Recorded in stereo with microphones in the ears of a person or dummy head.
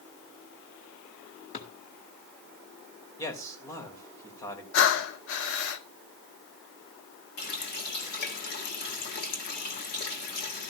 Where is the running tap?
50° left (ahead or behind), 1.7 m.